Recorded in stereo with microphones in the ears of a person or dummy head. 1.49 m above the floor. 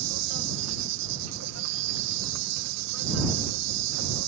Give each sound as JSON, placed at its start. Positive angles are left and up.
{"t": 0.0, "sound": "an insect", "side_deg": -80}